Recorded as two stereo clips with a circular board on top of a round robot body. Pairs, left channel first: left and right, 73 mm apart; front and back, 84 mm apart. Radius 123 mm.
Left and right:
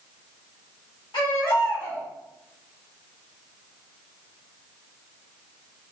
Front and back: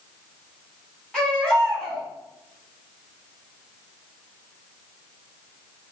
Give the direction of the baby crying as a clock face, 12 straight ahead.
9 o'clock.